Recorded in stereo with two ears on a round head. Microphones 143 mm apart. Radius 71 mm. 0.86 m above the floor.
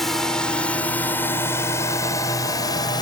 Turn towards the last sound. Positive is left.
turn(degrees=25)  # may be behind; listen again after turning